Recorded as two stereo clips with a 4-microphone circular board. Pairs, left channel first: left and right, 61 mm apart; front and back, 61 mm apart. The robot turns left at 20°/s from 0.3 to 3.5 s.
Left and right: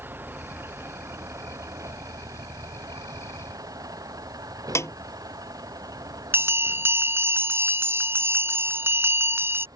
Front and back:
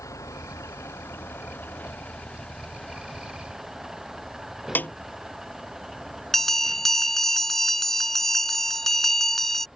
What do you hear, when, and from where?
0.0 s a vehicle: 35° right; by 9.8 s 95° right
4.8 s a snare drum: 55° left
6.3 s a bell: 85° right